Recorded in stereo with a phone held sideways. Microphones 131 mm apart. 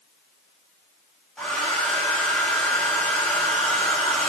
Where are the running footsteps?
No running footsteps in this recording.